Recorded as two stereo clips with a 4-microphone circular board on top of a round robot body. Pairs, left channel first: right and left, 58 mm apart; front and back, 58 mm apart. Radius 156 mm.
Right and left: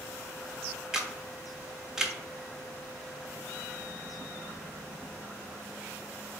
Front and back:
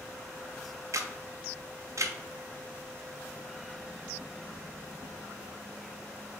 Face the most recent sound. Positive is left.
turn(degrees=165)